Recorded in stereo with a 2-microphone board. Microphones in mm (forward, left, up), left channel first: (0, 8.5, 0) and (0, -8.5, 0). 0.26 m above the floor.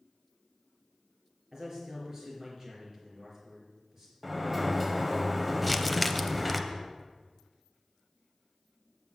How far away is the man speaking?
About 4.5 m.